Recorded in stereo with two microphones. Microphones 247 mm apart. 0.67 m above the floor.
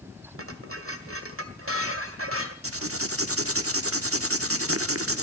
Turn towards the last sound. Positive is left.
turn(degrees=-65)  # may be behind; listen again after turning